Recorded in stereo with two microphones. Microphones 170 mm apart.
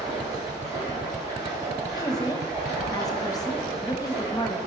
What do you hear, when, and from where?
0.0 s running water: 20° right (ahead or behind), 3.5 m
2.0 s a woman speaking: 20° left (ahead or behind), 0.8 m